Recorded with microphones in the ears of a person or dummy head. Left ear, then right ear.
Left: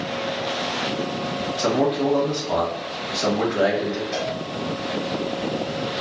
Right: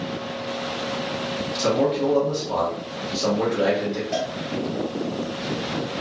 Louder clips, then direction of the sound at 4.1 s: Right 2 dB; 25° right (ahead or behind).